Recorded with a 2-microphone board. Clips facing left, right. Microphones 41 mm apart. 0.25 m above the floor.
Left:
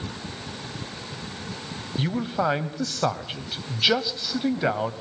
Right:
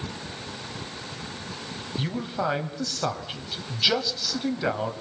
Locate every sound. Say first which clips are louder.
2.0 s a man speaking: left 4 dB; 15° left (ahead or behind), 1.0 m